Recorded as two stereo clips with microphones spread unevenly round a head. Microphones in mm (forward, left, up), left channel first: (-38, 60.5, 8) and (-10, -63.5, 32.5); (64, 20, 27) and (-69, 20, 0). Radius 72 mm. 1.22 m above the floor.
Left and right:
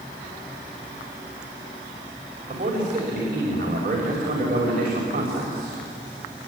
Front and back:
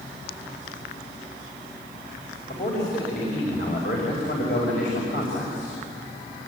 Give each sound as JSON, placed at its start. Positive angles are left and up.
{"t": 2.5, "sound": "a man speaking", "azimuth_deg": -30, "distance_m": 5.5}